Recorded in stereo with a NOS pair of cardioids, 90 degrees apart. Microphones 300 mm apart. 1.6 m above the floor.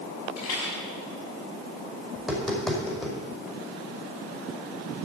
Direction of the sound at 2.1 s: Straight ahead.